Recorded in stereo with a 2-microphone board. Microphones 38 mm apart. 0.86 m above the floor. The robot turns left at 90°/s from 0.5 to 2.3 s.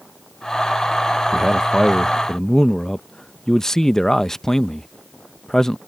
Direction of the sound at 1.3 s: 15° right (ahead or behind).